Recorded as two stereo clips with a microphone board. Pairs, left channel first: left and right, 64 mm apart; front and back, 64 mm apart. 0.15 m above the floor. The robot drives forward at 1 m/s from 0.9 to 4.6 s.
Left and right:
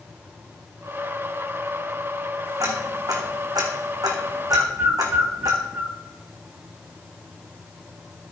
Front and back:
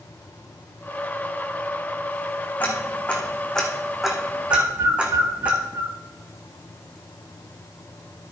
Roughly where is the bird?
Behind right.